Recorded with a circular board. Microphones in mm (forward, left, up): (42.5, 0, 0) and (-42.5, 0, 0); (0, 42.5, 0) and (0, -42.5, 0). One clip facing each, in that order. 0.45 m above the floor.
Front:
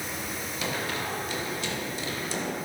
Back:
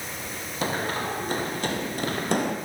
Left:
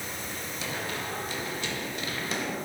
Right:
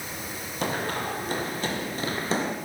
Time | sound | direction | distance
0.6 | running footsteps | 130° right | 5 m